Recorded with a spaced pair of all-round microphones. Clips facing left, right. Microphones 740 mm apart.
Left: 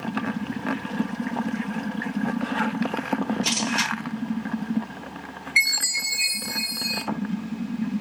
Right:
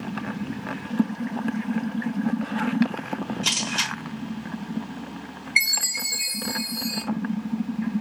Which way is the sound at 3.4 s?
20° left (ahead or behind).